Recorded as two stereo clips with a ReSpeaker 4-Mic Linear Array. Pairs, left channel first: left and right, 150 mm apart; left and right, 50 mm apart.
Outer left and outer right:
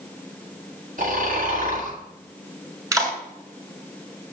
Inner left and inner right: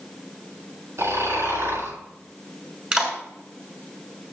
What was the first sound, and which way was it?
Snoring, 65° right (ahead or behind).